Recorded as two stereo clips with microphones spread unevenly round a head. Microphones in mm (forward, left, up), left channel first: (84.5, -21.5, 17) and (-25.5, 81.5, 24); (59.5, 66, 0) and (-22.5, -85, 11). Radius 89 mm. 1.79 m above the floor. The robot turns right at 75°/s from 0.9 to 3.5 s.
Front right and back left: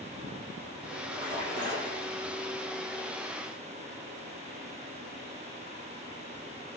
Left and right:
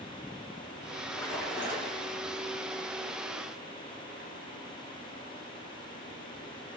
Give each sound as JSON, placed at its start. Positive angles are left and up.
{"t": 1.1, "sound": "a splash", "azimuth_deg": 125, "distance_m": 3.0}